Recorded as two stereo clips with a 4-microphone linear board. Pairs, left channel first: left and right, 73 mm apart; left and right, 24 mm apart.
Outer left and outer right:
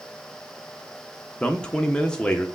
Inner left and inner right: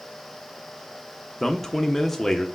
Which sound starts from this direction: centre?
A man speaking, at 1.4 s.